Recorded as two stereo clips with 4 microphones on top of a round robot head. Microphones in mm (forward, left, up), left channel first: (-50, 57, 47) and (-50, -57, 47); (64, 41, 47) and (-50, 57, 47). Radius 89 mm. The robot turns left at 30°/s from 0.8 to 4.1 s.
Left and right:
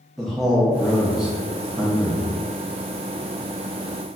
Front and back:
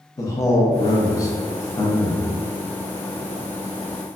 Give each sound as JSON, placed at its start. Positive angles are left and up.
{"t": 0.2, "sound": "a man speaking", "azimuth_deg": 5, "distance_m": 0.7}